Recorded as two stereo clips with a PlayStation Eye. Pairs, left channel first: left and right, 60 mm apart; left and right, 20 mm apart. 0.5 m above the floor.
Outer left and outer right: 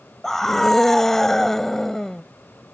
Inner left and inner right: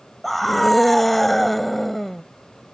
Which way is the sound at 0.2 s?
5° left (ahead or behind).